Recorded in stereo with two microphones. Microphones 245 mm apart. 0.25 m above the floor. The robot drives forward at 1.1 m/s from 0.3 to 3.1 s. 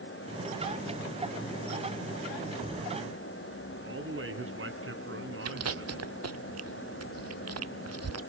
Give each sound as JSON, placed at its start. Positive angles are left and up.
{"t": 3.8, "sound": "a man speaking", "side_deg": -60, "distance_m": 2.0}
{"t": 5.5, "sound": "chewing", "side_deg": -80, "distance_m": 0.5}